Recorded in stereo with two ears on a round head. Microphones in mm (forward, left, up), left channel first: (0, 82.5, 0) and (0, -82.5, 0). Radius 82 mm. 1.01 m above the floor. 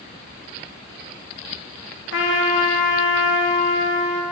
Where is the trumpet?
70° left (ahead or behind), 1.3 m.